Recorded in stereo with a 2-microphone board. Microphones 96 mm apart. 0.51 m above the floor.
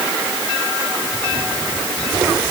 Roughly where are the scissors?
I don't hear scissors.